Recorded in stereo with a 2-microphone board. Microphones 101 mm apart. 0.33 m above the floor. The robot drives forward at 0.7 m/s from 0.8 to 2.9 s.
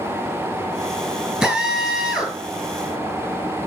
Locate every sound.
1.4 s a drill: 10° right (ahead or behind), 5 m